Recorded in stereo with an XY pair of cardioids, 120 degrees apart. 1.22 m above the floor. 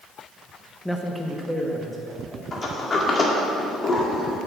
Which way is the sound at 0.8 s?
5° left.